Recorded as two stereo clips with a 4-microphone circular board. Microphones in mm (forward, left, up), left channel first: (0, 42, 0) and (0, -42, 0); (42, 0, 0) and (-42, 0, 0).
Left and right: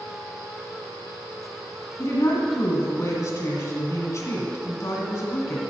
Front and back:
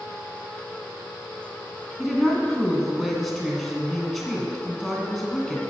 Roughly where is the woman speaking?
Left.